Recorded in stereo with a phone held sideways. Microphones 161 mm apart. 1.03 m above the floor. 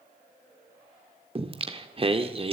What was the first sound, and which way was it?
Singing, 35° right (ahead or behind).